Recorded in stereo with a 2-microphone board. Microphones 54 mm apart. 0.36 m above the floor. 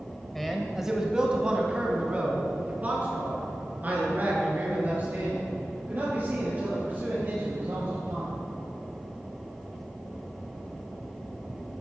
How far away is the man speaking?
About 1.1 m.